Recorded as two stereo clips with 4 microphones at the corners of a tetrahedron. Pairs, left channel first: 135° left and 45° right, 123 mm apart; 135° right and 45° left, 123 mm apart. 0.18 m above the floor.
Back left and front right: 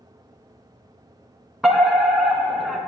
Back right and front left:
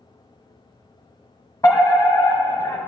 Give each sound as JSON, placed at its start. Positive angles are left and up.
{"t": 1.6, "sound": "a fire alarm", "azimuth_deg": -130, "distance_m": 2.0}